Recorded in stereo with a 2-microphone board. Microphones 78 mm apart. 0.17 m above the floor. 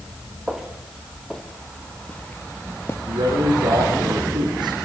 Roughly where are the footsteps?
Centre.